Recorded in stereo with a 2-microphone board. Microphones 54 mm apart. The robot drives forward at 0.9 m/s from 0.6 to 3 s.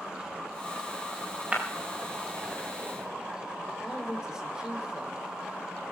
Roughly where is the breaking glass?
Right.